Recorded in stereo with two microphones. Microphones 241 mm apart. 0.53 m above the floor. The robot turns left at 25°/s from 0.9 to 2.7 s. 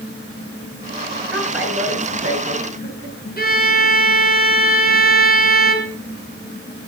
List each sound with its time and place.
1.3 s a woman speaking: straight ahead, 9 m; by 3.2 s 35° right, 9 m
3.4 s a violin: 40° left (ahead or behind), 3 m